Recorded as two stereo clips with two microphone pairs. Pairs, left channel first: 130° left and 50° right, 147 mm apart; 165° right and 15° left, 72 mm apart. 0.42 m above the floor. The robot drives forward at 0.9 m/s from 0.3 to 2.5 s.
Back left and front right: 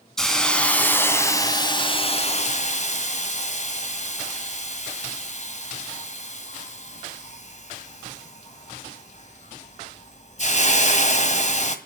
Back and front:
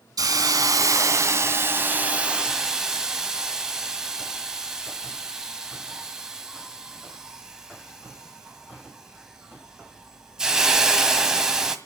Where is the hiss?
40° left, 2.5 m; by 11.8 s 95° left, 1.7 m.